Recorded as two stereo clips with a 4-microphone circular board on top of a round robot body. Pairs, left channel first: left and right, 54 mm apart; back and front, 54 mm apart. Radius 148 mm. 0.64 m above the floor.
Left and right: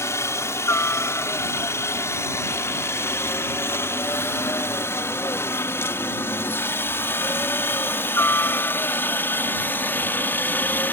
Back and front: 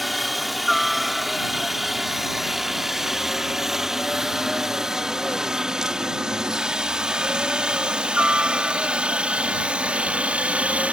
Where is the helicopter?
90° left; by 10.9 s 60° left.